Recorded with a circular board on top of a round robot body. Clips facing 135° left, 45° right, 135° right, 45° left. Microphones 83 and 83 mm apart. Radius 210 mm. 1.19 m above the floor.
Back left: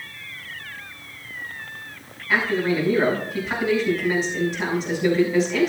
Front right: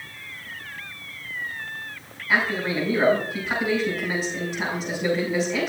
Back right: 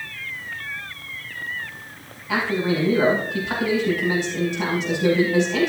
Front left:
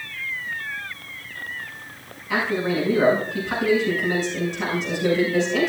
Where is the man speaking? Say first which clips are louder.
Back left 2 dB, back right 1 dB; 130° right, 5.5 m.